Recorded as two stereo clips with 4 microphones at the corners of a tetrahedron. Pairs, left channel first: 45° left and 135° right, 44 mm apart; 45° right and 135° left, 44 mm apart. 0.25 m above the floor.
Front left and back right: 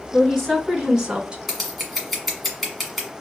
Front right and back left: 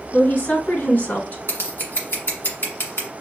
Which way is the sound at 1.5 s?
45° right.